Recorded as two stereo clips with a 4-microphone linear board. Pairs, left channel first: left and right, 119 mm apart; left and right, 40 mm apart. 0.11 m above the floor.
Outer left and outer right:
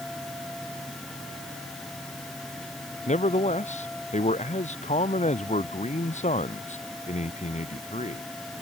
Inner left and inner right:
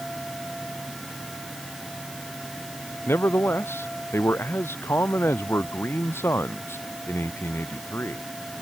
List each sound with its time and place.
3.1 s a man speaking: 80° left